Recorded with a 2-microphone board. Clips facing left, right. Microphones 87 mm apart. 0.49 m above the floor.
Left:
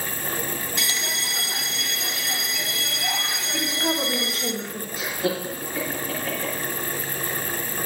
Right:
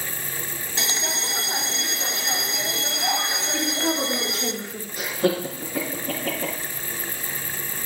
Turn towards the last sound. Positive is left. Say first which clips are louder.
# right 4 dB
turn(degrees=-60)  # may be behind; listen again after turning